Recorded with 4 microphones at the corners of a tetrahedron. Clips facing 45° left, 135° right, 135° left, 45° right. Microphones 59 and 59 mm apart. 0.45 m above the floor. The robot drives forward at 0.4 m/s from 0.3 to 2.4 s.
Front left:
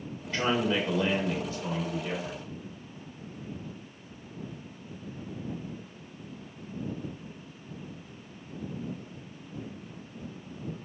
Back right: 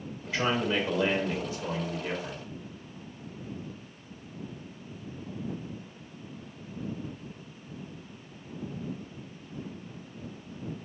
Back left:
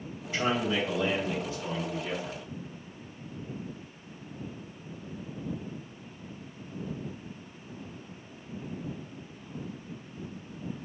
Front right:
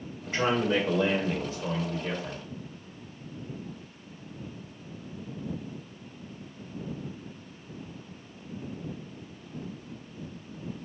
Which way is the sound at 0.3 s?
50° right.